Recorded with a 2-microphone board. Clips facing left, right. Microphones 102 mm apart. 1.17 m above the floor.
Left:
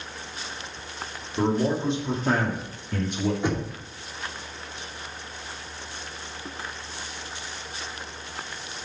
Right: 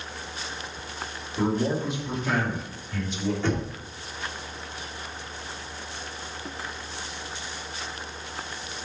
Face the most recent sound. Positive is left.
turn(degrees=15)  # may be behind; listen again after turning